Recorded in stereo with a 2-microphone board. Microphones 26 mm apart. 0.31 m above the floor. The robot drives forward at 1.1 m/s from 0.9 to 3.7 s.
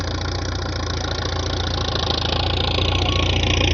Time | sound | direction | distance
0.0 | an engine running | centre (ahead or behind) | ?